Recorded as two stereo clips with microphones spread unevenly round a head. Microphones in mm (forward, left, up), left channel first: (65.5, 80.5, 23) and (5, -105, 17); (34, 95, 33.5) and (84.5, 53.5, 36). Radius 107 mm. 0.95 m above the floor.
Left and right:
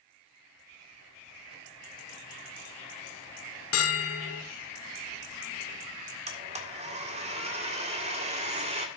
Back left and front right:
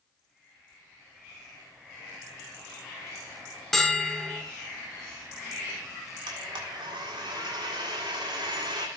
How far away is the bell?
About 1.6 m.